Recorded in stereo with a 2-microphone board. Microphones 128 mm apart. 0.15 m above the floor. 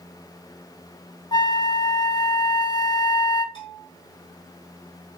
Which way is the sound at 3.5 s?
40° left (ahead or behind).